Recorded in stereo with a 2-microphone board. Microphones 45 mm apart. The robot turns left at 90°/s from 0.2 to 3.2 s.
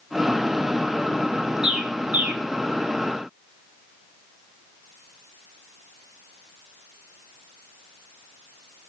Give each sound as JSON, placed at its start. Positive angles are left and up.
{"t": 1.6, "sound": "a bird", "side_deg": -15, "distance_m": 0.9}